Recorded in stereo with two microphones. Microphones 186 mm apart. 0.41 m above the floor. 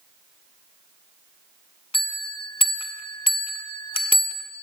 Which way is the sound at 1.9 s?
30° left (ahead or behind).